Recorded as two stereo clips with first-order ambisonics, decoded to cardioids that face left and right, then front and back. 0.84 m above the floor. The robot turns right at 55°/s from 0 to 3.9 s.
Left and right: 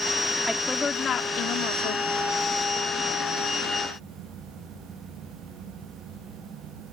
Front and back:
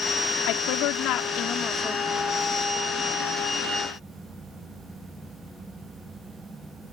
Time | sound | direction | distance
0.5 | a woman speaking | 5° right | ?